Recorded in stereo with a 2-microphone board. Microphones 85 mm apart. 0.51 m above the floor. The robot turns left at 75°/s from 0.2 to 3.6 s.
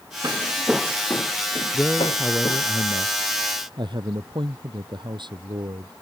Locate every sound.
0.2 s footsteps: 45° right (ahead or behind); by 2.6 s 40° left (ahead or behind)
1.7 s a man speaking: 25° left; by 5.9 s 115° right